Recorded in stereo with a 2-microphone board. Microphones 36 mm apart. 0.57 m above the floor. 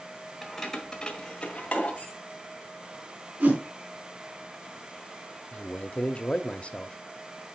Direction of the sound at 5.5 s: 40° left (ahead or behind).